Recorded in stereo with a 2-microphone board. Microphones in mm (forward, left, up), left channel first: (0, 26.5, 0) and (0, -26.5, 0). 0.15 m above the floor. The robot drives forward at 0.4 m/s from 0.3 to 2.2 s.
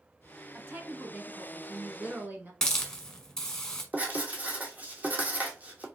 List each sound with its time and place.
0.5 s a woman speaking: 40° right (ahead or behind), 1.3 m
2.6 s a hiss: 10° left (ahead or behind), 1.3 m
3.9 s writing: 30° right (ahead or behind), 1.2 m